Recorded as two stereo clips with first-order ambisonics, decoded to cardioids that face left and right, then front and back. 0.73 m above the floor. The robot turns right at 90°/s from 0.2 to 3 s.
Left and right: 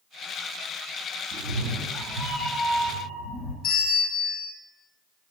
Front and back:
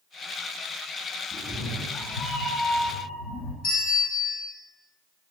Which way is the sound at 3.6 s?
40° left.